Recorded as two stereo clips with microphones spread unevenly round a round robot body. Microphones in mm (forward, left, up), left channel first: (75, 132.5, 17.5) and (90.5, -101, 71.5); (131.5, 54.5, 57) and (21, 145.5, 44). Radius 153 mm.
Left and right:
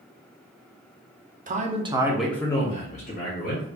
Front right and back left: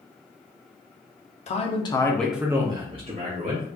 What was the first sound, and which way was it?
A man speaking, 30° right.